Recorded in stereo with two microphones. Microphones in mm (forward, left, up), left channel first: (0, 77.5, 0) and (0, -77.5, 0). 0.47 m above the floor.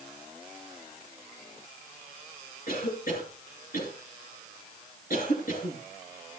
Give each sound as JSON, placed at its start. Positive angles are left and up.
{"t": 2.7, "sound": "a cough", "side_deg": 65, "distance_m": 9.0}